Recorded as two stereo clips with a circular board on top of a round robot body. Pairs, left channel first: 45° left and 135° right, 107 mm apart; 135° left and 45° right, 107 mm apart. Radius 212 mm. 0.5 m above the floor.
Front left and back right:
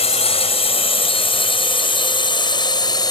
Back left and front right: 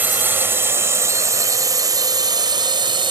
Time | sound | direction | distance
0.0 | a drone | 25° left | ?